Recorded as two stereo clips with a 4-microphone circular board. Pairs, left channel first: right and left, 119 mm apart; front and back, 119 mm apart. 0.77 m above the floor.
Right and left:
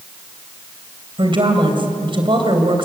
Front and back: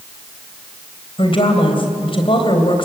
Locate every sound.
1.2 s a woman speaking: 45° left, 3.5 m